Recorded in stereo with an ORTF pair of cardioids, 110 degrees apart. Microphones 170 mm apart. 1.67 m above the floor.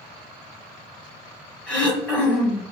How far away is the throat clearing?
About 1.1 m.